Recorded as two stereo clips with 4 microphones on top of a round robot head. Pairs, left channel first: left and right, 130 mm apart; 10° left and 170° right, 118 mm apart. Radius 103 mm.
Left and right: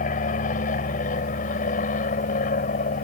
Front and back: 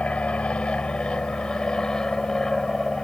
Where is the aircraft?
90° left; by 3.0 s 95° left.